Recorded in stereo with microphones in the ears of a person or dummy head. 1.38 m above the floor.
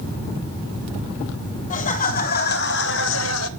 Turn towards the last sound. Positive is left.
turn(degrees=85)